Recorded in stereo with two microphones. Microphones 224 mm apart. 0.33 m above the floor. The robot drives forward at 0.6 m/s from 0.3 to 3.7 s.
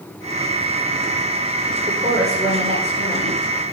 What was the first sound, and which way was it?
A woman speaking, 30° right (ahead or behind).